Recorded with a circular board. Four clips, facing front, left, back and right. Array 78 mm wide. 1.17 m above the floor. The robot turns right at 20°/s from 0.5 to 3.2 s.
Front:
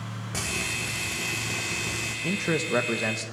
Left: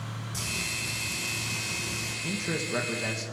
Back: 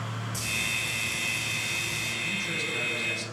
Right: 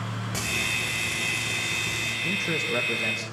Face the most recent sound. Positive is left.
turn(degrees=5)